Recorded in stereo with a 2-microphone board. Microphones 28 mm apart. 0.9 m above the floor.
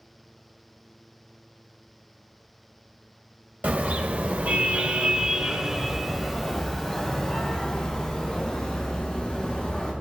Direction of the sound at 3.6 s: 85° right.